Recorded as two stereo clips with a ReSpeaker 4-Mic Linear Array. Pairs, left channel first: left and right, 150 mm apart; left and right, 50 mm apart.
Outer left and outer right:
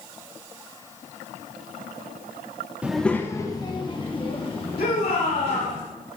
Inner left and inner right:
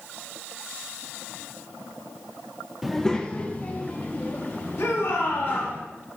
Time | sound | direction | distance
2.8 | a child speaking | 10° right (ahead or behind) | 0.5 m
4.8 | a shout | 85° left | 2.5 m